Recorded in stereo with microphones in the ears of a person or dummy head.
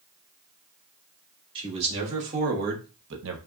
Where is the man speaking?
35° right (ahead or behind), 3 m; by 3.4 s 75° right (ahead or behind), 1.1 m.